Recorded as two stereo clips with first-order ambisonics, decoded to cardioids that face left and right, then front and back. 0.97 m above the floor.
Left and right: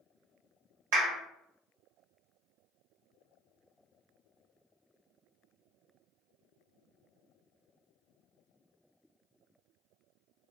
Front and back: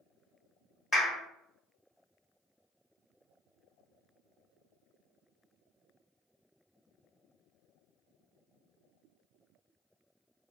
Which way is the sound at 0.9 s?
80° right.